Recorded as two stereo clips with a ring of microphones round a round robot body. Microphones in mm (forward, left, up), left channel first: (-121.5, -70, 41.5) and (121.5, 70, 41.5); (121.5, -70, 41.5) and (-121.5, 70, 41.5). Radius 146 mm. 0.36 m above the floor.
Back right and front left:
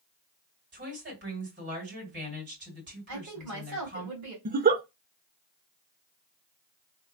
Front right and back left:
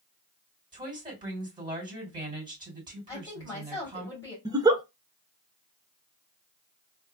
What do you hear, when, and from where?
0.7 s a woman speaking: 75° left, 3 m
3.1 s a woman speaking: 45° left, 2.5 m
4.5 s a giggle: 75° left, 0.5 m